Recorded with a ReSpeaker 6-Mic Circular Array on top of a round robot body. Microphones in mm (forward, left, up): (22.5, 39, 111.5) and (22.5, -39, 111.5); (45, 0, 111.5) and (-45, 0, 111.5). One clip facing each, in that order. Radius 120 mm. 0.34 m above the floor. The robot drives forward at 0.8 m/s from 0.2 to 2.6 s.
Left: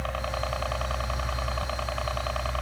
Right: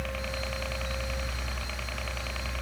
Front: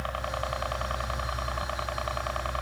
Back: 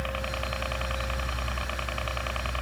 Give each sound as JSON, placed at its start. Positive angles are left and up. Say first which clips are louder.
{"t": 0.0, "sound": "a helicopter", "louder": "left 4 dB, front 1 dB", "azimuth_deg": 65}